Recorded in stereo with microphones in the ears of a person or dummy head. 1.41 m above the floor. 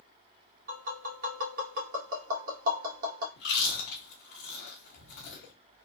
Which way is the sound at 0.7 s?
45° right (ahead or behind).